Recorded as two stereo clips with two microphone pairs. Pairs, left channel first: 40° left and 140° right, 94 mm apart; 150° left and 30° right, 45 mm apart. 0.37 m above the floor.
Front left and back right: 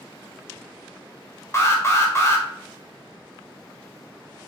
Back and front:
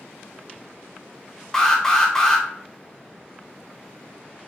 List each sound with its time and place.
1.5 s an alarm: 80° left, 0.9 m